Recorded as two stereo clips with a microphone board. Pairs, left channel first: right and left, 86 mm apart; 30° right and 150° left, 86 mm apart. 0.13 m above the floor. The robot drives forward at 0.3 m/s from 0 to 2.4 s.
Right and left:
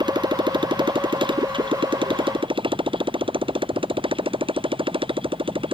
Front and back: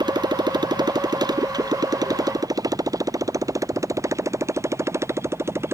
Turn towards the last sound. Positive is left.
turn(degrees=90)